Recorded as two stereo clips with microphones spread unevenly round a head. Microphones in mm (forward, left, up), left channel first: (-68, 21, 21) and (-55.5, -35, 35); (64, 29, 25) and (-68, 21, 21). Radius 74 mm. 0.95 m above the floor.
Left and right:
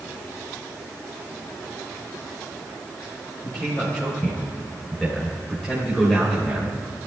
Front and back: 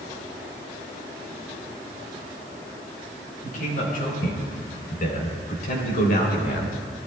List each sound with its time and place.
3.4 s a man speaking: 25° left, 5 m; by 6.8 s 15° left, 3 m